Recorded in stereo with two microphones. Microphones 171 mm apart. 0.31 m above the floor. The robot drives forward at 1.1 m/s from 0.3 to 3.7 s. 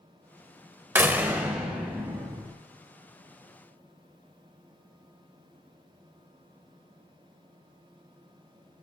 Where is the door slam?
15° right (ahead or behind), 0.8 m; by 2.5 s 5° right (ahead or behind), 2 m.